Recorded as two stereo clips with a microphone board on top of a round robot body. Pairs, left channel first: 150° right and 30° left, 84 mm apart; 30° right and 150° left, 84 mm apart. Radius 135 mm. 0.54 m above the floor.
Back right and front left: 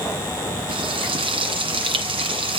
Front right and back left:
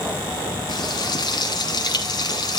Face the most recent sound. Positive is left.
turn(degrees=10)